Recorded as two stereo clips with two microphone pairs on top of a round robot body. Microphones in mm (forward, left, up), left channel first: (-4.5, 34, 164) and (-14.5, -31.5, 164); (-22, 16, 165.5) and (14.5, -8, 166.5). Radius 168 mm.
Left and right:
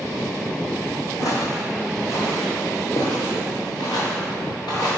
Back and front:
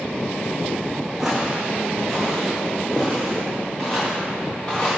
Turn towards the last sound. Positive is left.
turn(degrees=65)